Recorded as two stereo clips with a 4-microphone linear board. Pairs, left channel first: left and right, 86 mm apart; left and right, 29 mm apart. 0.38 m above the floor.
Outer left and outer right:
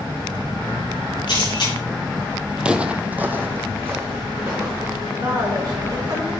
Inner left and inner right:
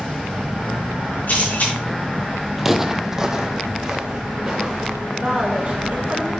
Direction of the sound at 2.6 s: 10° right (ahead or behind).